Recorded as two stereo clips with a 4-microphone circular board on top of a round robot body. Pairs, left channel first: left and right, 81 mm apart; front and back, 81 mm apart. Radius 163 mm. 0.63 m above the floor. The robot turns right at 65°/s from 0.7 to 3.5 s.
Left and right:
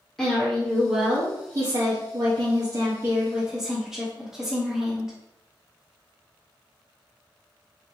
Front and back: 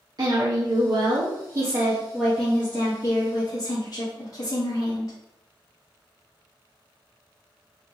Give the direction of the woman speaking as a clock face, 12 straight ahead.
6 o'clock.